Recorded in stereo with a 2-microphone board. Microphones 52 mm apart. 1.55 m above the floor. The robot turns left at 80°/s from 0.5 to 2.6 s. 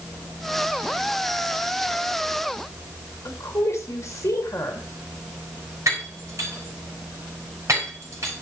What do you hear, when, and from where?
3.2 s a woman speaking: 65° left (ahead or behind), 3 m
5.9 s breaking glass: 75° right (ahead or behind), 5.5 m